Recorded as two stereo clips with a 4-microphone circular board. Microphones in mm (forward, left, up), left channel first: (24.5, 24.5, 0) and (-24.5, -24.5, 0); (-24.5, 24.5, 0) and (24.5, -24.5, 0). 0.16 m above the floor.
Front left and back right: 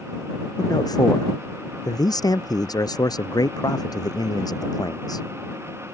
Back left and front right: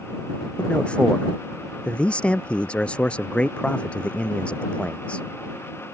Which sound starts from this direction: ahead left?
A man speaking, at 0.6 s.